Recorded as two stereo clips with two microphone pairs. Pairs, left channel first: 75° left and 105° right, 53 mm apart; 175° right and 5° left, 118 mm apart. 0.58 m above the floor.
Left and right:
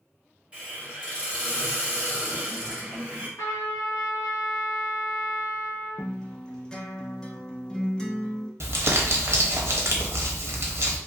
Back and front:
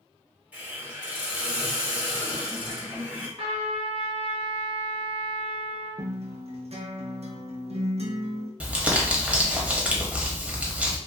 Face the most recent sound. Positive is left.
turn(degrees=-75)